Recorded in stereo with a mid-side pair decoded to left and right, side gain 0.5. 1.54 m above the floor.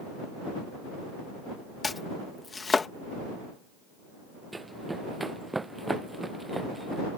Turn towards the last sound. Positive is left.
turn(degrees=-15)